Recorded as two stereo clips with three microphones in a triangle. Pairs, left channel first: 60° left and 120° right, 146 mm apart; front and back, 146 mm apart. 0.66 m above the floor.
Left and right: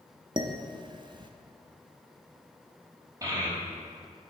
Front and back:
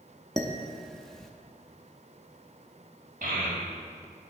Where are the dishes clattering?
85° right, 0.5 m.